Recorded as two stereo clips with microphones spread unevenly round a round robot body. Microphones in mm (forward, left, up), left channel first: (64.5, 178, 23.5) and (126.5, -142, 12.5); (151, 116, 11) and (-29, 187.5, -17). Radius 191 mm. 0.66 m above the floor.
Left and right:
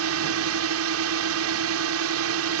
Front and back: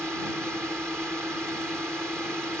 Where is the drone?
115° right.